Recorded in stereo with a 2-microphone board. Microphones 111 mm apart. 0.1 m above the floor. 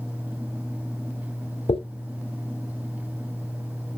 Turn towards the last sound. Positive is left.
turn(degrees=60)  # may be behind; listen again after turning